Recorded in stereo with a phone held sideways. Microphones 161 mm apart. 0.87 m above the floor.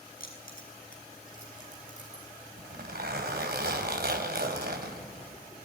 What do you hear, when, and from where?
0.2 s keys jangling: 65° left (ahead or behind), 6 m; by 2.2 s 45° left (ahead or behind), 8 m
2.6 s a zipper: 90° right, 3 m